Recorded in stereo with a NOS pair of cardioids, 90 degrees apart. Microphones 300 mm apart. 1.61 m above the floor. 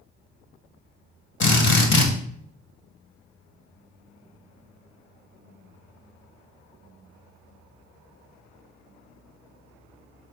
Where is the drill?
45° left, 1.9 m.